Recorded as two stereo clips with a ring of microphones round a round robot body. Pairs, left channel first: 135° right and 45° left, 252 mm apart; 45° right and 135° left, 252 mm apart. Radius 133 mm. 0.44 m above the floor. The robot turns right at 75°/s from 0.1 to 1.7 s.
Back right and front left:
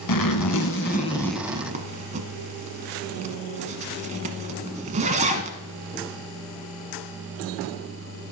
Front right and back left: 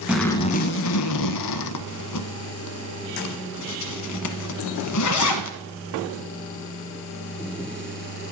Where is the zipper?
140° right, 1.0 m; by 5.6 s 20° right, 1.0 m.